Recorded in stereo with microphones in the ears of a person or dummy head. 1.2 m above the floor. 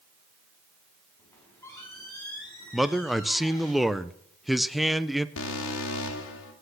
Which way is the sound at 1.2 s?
15° left (ahead or behind).